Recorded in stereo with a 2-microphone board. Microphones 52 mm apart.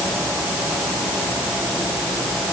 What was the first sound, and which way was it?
Only background noise.